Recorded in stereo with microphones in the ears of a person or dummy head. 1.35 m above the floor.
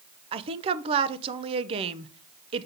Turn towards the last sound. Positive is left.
turn(degrees=-35)  # may be behind; listen again after turning